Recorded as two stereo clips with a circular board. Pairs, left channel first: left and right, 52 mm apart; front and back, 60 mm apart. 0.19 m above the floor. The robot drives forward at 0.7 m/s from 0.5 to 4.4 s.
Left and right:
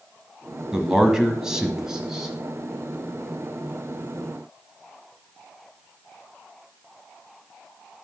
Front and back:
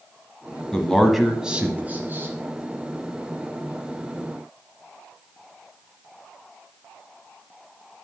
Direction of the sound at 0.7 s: 40° right.